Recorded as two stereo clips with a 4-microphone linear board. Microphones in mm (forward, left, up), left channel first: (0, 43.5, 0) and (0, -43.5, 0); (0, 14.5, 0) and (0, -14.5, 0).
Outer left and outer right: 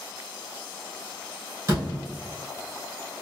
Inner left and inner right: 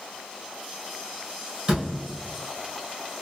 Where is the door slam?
30° right (ahead or behind), 1.6 m.